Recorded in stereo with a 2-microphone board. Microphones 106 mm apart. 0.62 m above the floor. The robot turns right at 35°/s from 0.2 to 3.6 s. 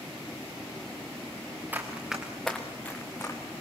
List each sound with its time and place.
1.7 s running footsteps: 20° right (ahead or behind), 3.5 m; by 3.4 s 25° left (ahead or behind), 2.5 m